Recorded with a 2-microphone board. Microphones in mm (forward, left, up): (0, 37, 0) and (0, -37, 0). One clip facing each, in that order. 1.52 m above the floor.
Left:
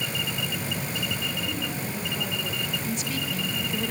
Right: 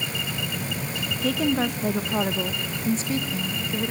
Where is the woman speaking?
80° right, 2.5 m; by 3.9 s 10° right (ahead or behind), 2.5 m.